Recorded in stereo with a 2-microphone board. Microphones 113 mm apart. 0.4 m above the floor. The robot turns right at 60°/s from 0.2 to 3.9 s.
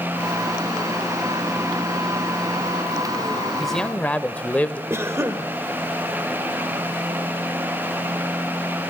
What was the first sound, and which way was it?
A man speaking, centre (ahead or behind).